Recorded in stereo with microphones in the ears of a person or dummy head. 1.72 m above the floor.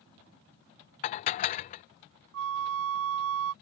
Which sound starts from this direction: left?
Dishes clattering, at 1.0 s.